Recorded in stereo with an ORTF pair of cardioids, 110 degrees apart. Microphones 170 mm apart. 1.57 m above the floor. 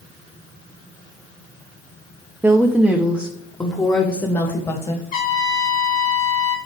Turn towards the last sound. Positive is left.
turn(degrees=60)